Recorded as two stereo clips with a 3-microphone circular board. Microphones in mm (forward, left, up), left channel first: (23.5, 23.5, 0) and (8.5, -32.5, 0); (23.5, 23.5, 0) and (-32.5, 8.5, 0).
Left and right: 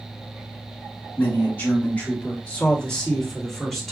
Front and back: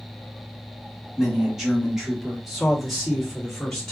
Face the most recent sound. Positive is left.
turn(degrees=-20)